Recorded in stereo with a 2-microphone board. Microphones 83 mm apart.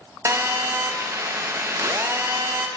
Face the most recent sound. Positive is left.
turn(degrees=-35)  # may be behind; listen again after turning